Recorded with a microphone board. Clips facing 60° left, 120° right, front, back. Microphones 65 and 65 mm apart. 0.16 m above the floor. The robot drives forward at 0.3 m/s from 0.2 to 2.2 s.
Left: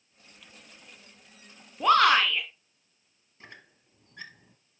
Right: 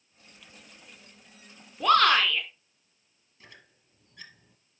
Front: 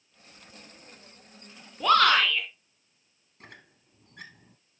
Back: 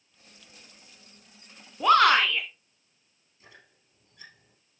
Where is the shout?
120° left, 1.1 m; by 2.5 s 125° left, 1.2 m.